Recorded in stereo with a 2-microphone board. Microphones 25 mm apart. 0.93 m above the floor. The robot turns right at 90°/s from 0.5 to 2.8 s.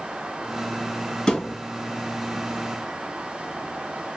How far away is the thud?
About 2.5 m.